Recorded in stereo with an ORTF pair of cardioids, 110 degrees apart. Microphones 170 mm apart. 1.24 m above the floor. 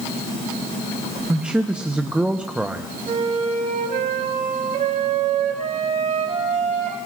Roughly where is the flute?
Ahead right.